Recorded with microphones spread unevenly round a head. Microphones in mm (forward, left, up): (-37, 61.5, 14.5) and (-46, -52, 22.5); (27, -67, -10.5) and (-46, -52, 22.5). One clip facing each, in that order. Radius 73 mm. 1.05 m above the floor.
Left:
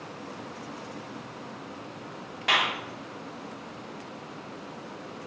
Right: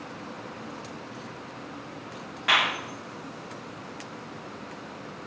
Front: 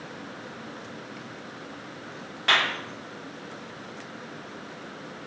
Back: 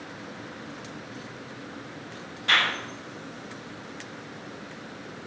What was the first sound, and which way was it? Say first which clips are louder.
A clap: right 1 dB, even; 20° left.